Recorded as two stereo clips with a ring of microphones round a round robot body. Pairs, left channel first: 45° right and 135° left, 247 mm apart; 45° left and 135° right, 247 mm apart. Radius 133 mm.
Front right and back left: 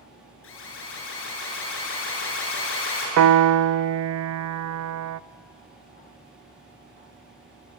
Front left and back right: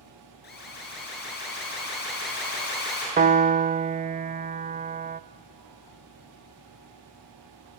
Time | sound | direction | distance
0.4 | an alarm | 5° right | 8 m
3.2 | a piano | 165° left | 0.5 m